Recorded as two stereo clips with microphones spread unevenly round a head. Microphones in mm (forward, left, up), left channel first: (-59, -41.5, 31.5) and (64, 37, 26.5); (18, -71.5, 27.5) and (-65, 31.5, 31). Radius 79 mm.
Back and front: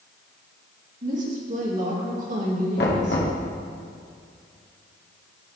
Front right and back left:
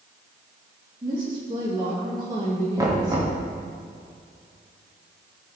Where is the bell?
No bell in this recording.